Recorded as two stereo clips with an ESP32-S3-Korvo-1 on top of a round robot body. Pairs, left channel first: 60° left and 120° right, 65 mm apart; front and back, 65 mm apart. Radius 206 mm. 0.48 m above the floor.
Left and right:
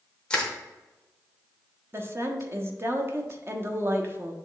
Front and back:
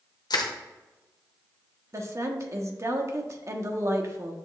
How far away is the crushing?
About 0.9 m.